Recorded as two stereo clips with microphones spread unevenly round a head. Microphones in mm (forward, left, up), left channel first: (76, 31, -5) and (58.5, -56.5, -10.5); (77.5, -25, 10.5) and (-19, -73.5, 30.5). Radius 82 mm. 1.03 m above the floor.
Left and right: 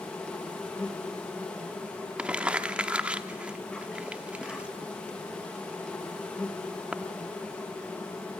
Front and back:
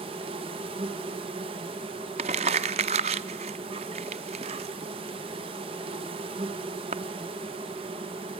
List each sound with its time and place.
0.0 s an insect: 160° left, 2 m
2.2 s crumpling: 175° left, 0.8 m